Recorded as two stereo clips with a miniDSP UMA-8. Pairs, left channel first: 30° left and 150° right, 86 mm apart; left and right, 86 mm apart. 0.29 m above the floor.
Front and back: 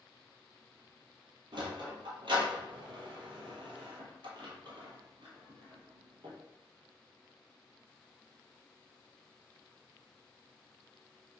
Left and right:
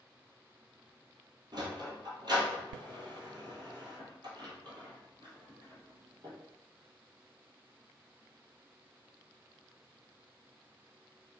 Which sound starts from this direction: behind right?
A sliding door, at 1.5 s.